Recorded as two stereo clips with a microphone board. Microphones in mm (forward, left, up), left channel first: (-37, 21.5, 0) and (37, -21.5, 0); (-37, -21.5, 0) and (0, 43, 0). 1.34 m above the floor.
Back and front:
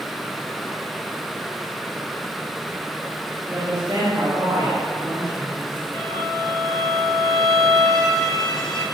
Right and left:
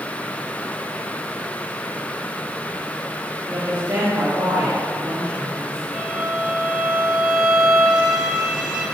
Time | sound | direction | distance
3.5 | a woman speaking | 30° left | 5 m
5.9 | a violin | 60° left | 4.5 m